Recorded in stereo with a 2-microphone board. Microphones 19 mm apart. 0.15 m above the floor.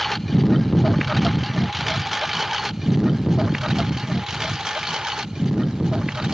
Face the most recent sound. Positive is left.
turn(degrees=-45)  # may be behind; listen again after turning